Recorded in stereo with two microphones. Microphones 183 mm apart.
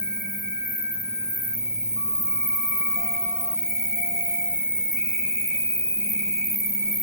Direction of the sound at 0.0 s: 50° left (ahead or behind).